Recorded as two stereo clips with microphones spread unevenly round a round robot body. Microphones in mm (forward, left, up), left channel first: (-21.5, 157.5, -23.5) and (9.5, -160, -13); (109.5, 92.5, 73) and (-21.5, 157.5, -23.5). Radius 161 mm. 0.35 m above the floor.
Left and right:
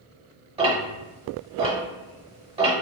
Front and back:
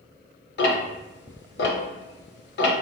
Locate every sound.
0.6 s ticking: 25° right, 0.7 m